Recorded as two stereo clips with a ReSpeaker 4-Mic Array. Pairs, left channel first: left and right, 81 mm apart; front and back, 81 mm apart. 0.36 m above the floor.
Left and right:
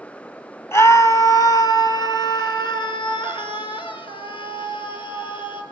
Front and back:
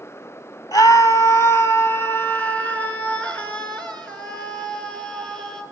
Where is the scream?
35° left, 2.5 m; by 5.6 s 85° left, 7 m.